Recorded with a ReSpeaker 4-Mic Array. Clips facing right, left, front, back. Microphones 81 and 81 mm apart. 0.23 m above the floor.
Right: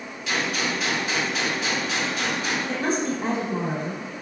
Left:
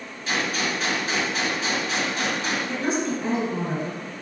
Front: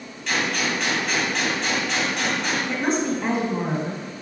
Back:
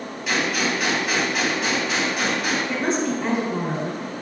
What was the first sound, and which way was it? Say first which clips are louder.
A gunshot: even, back 1 dB; 100° left.